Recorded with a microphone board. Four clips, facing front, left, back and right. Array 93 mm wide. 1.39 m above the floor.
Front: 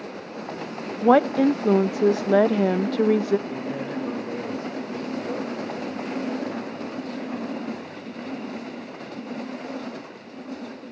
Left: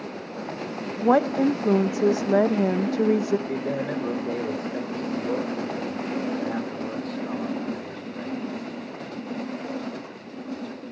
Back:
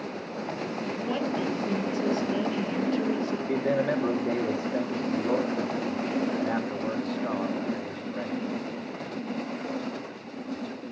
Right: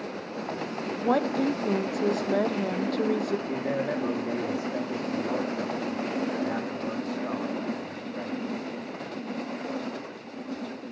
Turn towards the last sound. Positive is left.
turn(degrees=-165)